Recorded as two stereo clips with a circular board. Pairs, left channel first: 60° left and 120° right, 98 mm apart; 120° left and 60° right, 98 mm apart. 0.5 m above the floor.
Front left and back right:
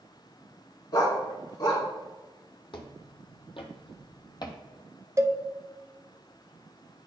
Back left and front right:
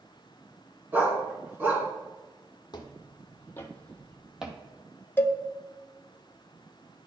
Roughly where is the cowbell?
Behind.